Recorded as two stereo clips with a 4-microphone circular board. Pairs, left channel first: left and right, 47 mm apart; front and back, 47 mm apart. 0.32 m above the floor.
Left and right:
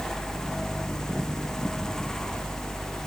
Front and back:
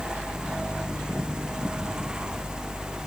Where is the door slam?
No door slam in this recording.